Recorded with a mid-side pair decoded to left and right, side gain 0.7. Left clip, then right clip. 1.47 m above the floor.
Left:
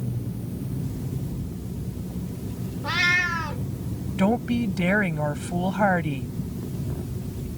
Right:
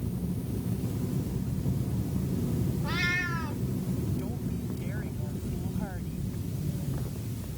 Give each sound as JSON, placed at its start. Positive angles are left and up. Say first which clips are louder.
{"t": 2.8, "sound": "a cat meowing", "louder": "left 9 dB", "azimuth_deg": 40}
{"t": 4.2, "sound": "a woman speaking", "louder": "left 14 dB", "azimuth_deg": 65}